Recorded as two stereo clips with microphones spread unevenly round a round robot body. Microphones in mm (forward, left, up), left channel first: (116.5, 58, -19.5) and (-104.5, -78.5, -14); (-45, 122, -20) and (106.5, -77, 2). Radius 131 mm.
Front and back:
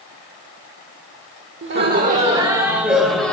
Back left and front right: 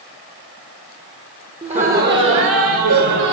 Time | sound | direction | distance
1.6 | laughter | 125° right | 1.7 m